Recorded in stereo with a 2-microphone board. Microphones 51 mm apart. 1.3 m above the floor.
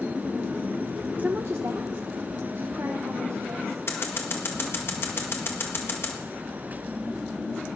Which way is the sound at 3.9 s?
55° left (ahead or behind).